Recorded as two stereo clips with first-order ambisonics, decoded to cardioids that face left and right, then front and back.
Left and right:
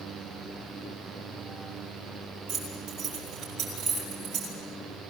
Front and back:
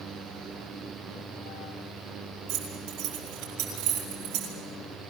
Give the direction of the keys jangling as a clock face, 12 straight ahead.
5 o'clock.